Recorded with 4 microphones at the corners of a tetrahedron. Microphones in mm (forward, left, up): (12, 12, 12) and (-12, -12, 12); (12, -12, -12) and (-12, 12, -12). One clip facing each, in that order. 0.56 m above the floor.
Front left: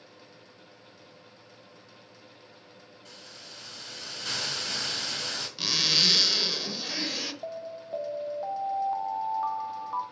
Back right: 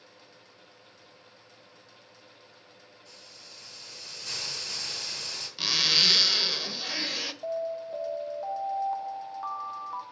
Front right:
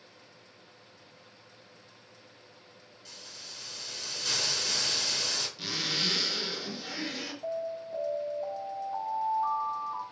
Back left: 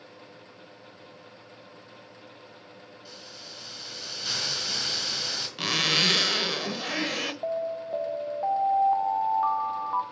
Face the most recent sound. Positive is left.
turn(degrees=125)